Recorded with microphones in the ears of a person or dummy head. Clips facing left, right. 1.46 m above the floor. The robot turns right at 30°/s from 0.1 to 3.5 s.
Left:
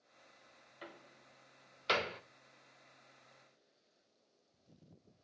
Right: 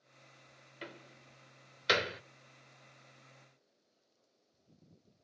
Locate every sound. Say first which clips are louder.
0.8 s a door slam: right 4 dB; 40° right (ahead or behind), 0.7 m; by 2.2 s 20° right (ahead or behind), 0.7 m